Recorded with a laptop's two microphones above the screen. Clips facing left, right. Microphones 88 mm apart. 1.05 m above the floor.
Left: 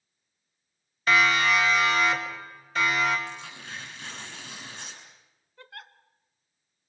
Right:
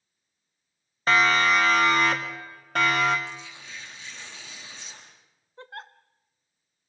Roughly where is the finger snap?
No finger snap in this recording.